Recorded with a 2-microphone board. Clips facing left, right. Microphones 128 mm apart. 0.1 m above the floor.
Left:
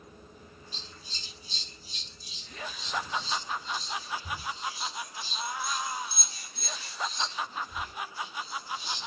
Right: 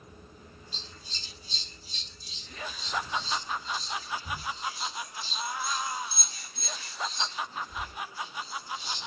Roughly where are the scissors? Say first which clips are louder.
Even; left.